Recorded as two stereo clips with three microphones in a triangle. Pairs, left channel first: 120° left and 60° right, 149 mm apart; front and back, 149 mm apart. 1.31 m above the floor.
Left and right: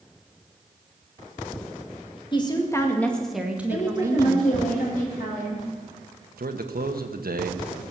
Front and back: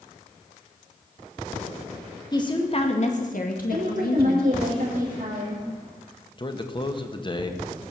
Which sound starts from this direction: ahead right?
A man speaking, at 6.4 s.